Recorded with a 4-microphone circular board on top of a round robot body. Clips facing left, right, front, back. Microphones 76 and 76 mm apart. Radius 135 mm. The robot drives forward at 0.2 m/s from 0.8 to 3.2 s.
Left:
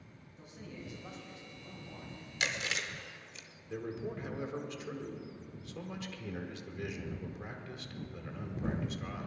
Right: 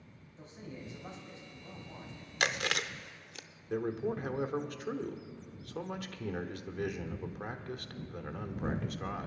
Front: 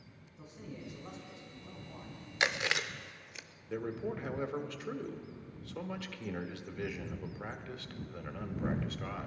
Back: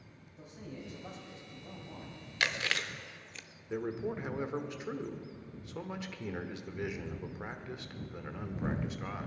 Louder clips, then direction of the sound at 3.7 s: Right 6 dB, back 2 dB; 110° right.